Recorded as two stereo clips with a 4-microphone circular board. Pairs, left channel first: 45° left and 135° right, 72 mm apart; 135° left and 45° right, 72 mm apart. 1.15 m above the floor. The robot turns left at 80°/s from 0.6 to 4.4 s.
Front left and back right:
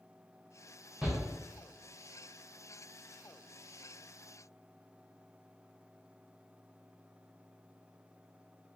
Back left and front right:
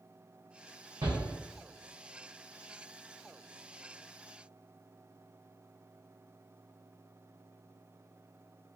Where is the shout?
55° right, 0.9 m; by 1.2 s 70° right, 0.9 m.